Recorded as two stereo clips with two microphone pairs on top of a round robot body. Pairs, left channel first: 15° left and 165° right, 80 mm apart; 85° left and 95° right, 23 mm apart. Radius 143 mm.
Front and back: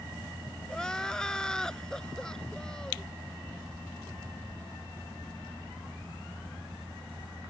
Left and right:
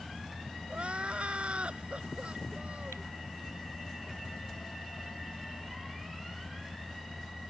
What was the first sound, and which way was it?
Crying, 60° right.